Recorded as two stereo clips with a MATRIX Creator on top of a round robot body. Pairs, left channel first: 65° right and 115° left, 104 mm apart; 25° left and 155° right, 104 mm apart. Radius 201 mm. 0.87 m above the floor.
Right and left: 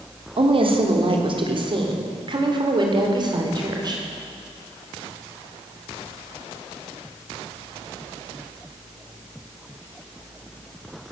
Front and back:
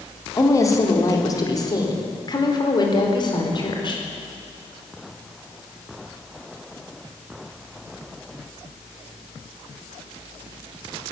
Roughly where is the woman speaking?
Left.